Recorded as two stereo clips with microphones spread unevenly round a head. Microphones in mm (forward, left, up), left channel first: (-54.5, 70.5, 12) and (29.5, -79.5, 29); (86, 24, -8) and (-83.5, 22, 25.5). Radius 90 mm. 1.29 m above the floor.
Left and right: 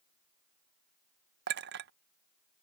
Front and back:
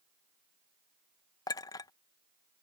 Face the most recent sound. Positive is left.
turn(degrees=-75)